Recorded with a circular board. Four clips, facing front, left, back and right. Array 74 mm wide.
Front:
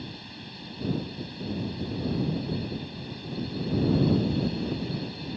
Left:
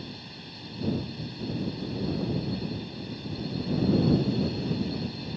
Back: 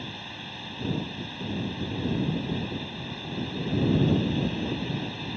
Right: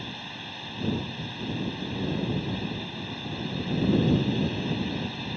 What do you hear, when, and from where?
0.0 s a drone: 125° right